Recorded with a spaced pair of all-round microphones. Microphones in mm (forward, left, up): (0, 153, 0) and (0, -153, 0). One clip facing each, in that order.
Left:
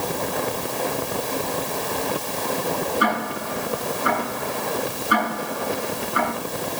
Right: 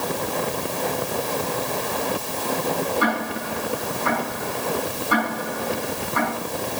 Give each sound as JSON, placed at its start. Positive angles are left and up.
{"t": 3.0, "sound": "ticking", "side_deg": 20, "distance_m": 9.5}